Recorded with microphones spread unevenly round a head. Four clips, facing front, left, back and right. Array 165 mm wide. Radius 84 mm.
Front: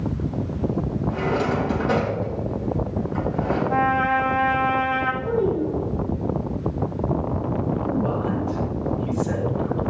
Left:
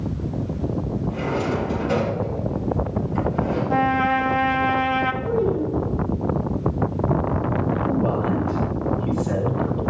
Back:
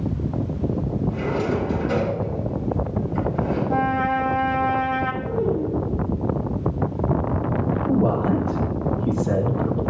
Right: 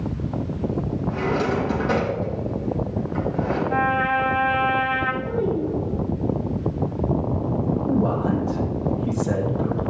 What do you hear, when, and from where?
1.1 s a drawer: 35° right, 4 m
3.7 s a trumpet: 115° left, 0.8 m
5.2 s a child speaking: 10° left, 2.5 m
7.9 s a man speaking: 160° right, 1.7 m